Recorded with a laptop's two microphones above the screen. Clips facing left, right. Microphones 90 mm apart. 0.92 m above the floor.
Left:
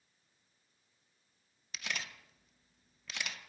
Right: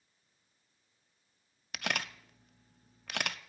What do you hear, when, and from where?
1.7 s a camera shutter: 60° right (ahead or behind), 0.6 m